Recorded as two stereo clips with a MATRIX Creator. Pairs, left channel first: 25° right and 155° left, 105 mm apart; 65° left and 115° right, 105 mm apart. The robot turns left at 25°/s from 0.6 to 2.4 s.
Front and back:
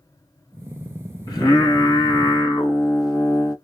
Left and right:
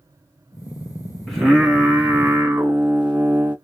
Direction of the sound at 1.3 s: 20° right.